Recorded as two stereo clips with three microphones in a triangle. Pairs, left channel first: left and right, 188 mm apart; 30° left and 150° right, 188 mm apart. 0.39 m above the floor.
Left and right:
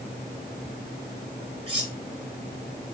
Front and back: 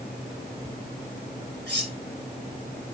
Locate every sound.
1.7 s cutlery clinking: 150° right, 3 m